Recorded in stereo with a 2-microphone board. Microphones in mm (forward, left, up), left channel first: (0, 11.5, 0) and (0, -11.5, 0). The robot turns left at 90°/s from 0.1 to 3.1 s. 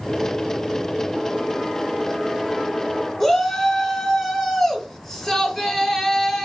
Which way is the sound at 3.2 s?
10° left (ahead or behind).